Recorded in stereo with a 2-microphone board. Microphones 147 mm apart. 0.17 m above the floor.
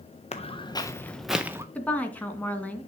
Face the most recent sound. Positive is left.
turn(degrees=10)  # may be behind; listen again after turning